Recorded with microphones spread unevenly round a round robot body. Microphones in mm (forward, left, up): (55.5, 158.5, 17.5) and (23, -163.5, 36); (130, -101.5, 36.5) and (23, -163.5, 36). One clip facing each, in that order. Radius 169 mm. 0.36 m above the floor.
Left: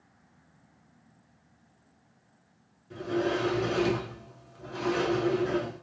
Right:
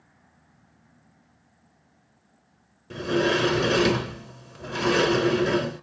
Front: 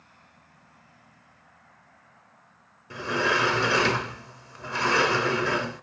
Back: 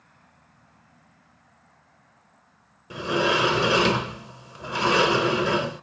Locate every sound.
2.9 s a sliding door: 75° right, 1.0 m